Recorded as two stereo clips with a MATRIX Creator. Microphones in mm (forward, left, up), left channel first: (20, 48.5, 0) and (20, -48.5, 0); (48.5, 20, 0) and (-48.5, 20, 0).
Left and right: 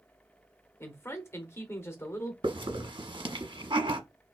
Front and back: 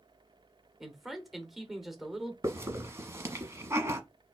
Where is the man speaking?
95° left, 1.0 m.